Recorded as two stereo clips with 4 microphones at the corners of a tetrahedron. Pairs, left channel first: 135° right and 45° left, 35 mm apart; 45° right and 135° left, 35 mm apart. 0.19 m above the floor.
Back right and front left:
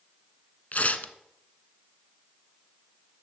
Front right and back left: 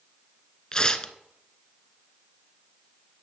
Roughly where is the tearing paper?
Right.